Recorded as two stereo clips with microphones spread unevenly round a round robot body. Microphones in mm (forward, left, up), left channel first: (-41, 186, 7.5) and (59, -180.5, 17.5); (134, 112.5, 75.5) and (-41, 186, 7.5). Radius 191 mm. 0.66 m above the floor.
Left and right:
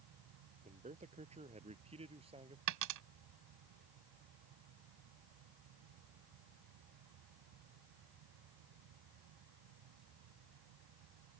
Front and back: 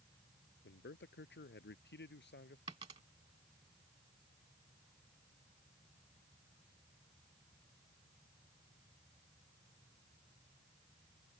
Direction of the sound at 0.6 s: Straight ahead.